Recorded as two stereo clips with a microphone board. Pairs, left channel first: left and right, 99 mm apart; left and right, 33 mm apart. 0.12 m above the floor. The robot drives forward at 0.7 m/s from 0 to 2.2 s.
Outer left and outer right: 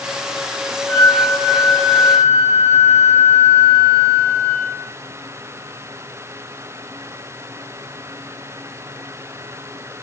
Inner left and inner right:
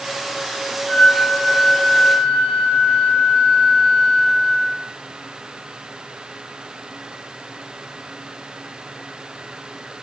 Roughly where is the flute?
Left.